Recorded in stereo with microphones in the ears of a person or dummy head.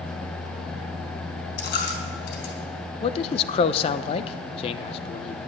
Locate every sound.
1.6 s a dropped coin: 65° left (ahead or behind), 3 m
3.0 s a man speaking: 35° left (ahead or behind), 0.7 m